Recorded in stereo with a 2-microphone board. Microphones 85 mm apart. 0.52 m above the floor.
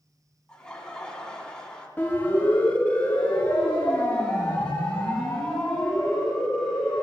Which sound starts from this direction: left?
A siren, at 2.0 s.